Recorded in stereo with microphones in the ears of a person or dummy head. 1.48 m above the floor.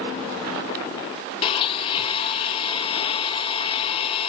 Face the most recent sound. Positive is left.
turn(degrees=35)  # may be behind; listen again after turning